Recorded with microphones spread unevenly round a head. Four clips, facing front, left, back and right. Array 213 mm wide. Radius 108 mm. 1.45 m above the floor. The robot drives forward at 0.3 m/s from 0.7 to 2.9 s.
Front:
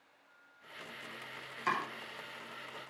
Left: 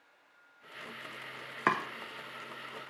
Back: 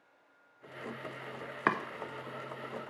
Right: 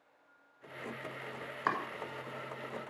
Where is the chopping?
140° left, 0.7 m; by 1.8 s 145° left, 0.7 m.